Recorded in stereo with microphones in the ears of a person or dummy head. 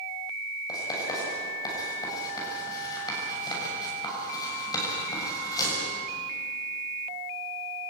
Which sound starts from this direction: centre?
Writing, at 0.7 s.